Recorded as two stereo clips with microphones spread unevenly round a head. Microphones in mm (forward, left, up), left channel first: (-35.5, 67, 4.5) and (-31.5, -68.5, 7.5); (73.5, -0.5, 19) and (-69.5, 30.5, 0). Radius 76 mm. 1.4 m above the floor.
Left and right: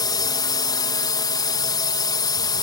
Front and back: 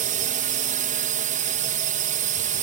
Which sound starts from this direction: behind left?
A drone, at 0.0 s.